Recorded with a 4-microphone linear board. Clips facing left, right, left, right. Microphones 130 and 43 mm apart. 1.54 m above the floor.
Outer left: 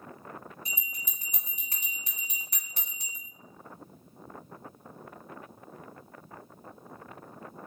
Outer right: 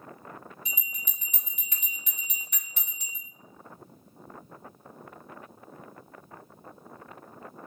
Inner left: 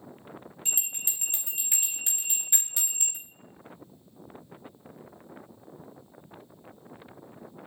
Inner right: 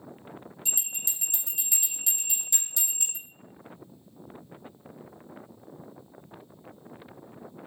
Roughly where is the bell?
Left.